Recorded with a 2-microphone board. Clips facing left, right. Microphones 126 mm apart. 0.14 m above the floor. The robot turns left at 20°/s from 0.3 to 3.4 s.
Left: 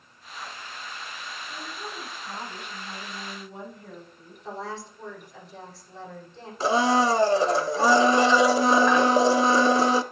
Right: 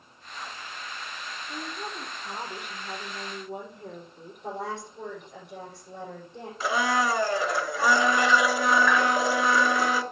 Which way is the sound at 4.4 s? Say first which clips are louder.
Right 1 dB; 75° right (ahead or behind).